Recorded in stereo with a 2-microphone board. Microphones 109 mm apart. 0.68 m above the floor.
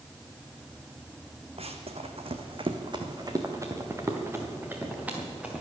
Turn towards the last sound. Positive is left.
turn(degrees=-10)  # may be behind; listen again after turning